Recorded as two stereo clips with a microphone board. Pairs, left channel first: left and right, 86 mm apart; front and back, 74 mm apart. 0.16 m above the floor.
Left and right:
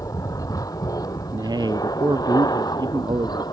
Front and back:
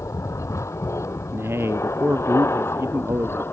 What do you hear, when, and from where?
0.0 s an aircraft: 45° left; by 3.5 s 55° left
1.3 s a man speaking: 125° right